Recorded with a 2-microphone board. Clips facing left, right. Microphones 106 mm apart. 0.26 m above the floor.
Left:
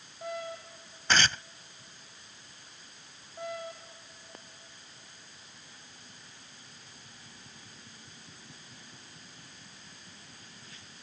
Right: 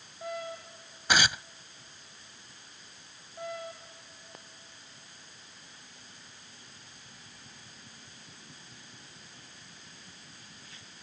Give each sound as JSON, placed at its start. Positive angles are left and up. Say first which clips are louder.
{"t": 1.1, "sound": "tearing paper", "louder": "even", "side_deg": -10}